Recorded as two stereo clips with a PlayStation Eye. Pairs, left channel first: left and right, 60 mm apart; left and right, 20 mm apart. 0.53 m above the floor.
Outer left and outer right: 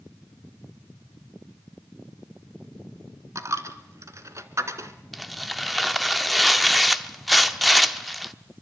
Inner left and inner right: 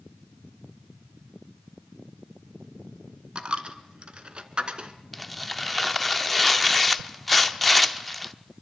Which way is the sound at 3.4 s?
55° right (ahead or behind).